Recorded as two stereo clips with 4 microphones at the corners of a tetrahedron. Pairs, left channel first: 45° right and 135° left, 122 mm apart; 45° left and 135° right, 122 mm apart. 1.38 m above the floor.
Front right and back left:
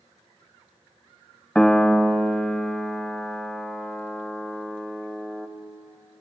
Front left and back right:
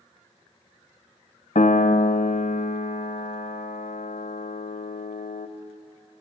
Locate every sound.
1.6 s a piano: 40° left, 0.6 m